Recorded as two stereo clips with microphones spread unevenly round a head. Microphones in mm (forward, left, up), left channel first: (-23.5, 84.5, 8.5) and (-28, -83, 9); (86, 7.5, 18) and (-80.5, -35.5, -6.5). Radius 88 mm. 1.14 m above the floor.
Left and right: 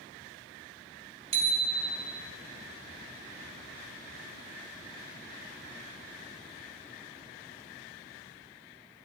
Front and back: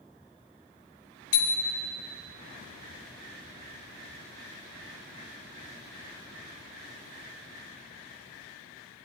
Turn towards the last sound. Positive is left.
turn(degrees=-35)